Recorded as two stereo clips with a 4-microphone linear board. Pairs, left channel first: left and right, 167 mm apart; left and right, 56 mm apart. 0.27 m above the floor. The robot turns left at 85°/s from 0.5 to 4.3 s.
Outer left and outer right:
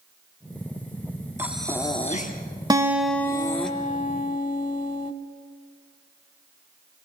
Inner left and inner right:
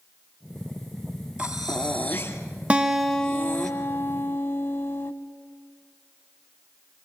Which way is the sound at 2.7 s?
150° right.